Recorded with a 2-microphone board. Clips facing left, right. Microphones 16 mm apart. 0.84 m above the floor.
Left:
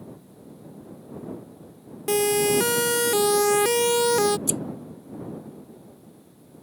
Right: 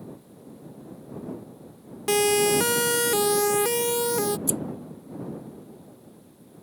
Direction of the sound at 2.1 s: 15° right (ahead or behind).